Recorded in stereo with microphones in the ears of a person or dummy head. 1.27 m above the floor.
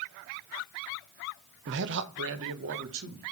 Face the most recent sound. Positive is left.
turn(degrees=-80)